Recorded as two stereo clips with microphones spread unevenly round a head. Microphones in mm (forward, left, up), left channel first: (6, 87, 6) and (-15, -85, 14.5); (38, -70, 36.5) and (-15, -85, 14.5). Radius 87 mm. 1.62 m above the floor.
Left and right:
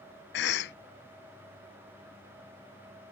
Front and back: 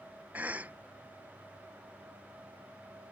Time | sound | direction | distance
0.3 | a cough | 105° left | ?